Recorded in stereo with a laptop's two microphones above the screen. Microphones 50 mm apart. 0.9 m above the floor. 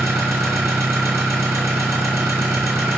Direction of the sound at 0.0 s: 85° right.